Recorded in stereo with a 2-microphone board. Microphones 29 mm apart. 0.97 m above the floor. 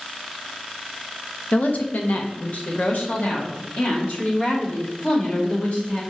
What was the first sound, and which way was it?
A woman speaking, 65° left (ahead or behind).